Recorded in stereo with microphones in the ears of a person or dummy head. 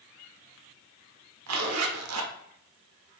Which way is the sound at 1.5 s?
85° right.